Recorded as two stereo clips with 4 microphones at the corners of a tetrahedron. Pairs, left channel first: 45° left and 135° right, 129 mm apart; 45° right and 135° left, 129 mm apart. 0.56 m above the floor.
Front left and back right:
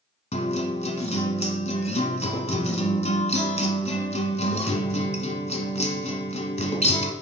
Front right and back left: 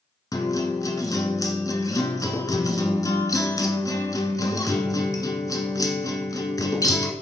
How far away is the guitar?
About 1.4 m.